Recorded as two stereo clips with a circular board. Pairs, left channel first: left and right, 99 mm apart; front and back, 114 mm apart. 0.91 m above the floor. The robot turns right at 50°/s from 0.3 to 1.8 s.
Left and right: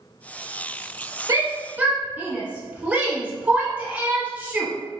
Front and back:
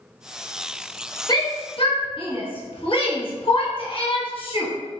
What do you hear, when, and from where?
1.3 s a shout: 45° right, 1.1 m; by 4.7 s 20° right, 1.1 m